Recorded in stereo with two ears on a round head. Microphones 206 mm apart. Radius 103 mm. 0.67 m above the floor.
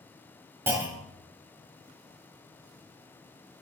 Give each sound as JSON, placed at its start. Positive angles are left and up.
{"t": 0.7, "sound": "a clunk", "side_deg": -10, "distance_m": 1.5}